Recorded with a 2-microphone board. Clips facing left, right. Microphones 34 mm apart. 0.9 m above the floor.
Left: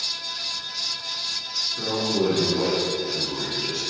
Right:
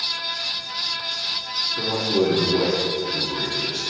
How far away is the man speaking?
About 1.7 m.